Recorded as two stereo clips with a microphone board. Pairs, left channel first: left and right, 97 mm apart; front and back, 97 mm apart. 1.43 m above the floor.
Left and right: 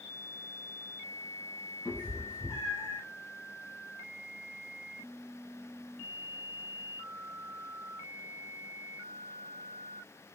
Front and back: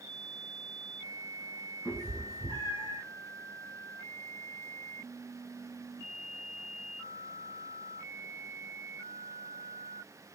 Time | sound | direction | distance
1.9 | a cat meowing | 55° left | 2.5 m